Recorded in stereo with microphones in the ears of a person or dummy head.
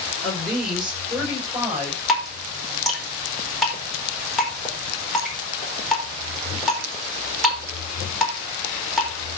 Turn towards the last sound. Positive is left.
turn(degrees=5)  # may be behind; listen again after turning